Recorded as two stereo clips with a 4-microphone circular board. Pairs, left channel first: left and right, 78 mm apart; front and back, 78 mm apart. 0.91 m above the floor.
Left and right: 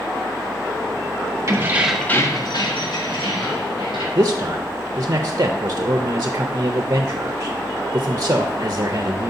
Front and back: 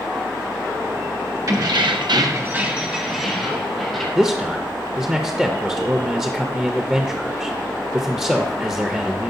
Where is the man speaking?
110° right, 0.5 m.